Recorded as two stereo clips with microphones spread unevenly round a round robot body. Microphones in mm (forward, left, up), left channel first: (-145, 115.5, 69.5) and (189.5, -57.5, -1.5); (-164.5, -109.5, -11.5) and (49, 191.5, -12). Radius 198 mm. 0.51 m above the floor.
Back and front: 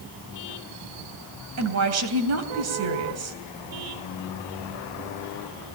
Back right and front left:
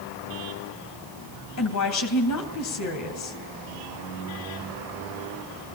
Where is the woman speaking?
75° right, 3 m.